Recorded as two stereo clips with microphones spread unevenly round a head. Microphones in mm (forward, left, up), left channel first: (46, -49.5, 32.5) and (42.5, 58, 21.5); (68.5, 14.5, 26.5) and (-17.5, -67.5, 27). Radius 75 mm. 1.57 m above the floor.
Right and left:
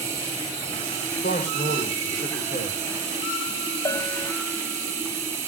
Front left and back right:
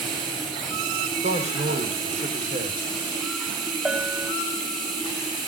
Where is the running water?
165° left, 8 m.